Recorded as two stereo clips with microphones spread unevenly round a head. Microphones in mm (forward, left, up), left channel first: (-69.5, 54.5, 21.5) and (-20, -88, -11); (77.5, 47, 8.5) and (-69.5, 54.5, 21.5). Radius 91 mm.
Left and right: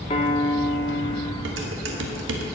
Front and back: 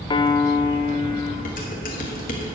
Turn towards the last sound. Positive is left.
turn(degrees=-55)